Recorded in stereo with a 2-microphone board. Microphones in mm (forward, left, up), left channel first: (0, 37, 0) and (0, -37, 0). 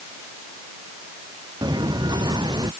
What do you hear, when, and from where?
1.6 s footsteps: 70° right (ahead or behind); by 2.7 s 75° right (ahead or behind)